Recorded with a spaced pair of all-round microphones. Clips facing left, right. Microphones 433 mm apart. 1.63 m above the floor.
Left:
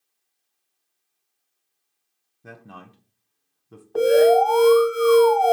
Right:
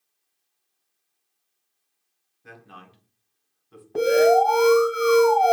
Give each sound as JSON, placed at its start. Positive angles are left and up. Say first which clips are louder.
{"t": 2.4, "sound": "a man speaking", "louder": "left 4 dB", "side_deg": 60, "distance_m": 1.1}
{"t": 4.0, "sound": "an alarm", "louder": "left 2 dB", "side_deg": -40, "distance_m": 1.9}